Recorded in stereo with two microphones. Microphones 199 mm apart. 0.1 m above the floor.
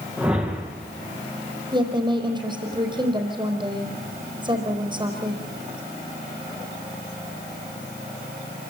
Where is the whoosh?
5° right (ahead or behind), 4 m.